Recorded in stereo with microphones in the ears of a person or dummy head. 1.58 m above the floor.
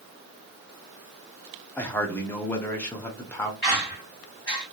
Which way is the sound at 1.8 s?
10° left (ahead or behind).